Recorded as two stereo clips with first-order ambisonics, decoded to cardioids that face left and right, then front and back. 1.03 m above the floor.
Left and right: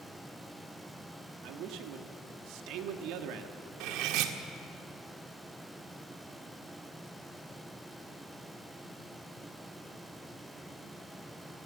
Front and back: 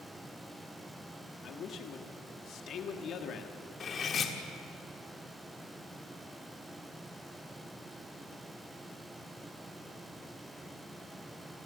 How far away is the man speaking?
About 1.6 m.